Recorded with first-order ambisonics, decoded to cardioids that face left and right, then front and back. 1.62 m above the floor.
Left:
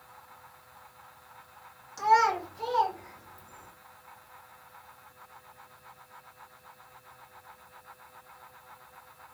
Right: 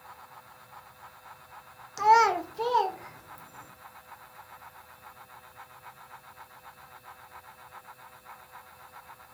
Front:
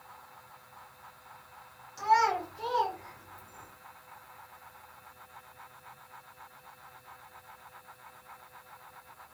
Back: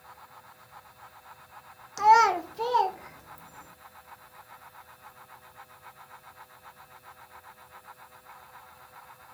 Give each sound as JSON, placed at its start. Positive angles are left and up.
{"t": 2.0, "sound": "a child speaking", "azimuth_deg": -150, "distance_m": 0.6}